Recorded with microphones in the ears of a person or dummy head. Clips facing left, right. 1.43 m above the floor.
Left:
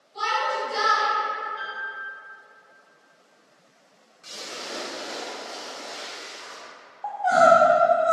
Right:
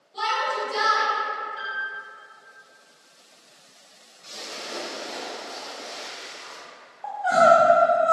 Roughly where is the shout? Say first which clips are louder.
Even; right.